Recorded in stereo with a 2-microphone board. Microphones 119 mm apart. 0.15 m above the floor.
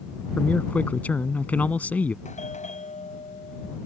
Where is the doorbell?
80° left.